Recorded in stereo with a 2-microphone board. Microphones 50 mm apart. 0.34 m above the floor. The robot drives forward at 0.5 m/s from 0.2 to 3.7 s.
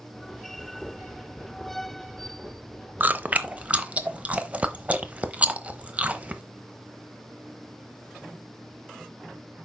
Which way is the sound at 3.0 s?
40° right (ahead or behind).